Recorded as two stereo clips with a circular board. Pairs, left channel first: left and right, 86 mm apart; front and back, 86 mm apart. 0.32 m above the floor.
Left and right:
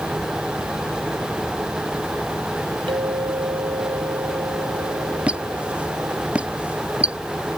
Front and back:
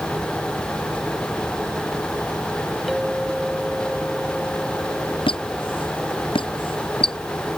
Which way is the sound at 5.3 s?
15° right.